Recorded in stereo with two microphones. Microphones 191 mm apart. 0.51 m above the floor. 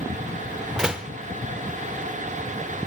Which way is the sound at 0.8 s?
5° right (ahead or behind).